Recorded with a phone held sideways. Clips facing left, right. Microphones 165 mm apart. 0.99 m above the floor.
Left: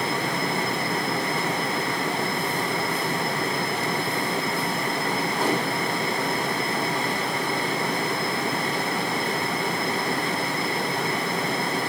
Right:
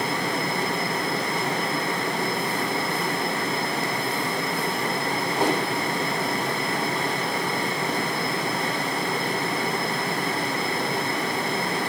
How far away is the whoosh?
About 4 m.